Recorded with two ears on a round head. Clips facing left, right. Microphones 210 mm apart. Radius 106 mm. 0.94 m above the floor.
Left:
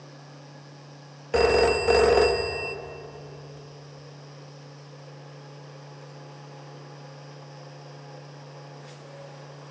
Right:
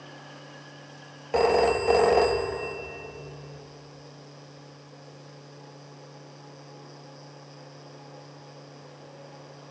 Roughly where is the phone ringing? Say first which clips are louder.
Left 1 dB; centre.